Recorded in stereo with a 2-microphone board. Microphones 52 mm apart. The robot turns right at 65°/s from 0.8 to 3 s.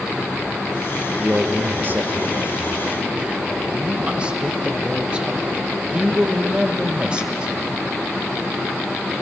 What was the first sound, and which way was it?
A man speaking, 150° right.